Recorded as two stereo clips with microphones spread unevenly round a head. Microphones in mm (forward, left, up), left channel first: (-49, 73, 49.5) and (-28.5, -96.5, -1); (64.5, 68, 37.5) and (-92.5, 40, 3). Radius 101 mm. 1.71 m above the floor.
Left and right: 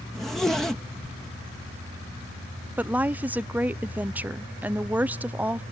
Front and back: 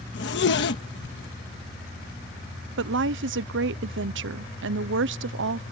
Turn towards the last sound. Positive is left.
turn(degrees=-170)